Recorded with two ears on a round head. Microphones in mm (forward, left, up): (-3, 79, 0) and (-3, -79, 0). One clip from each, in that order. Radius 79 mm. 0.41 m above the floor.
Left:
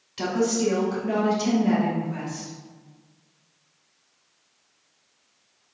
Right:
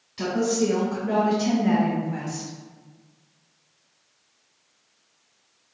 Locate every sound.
0.2 s a woman speaking: 25° left (ahead or behind), 1.5 m; by 2.5 s 30° right (ahead or behind), 1.6 m